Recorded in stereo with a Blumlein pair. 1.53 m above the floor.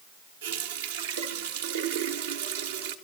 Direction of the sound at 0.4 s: 60° right.